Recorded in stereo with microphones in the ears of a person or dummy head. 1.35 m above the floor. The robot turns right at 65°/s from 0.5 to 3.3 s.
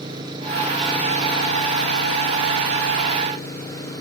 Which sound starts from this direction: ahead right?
An engine running, at 0.0 s.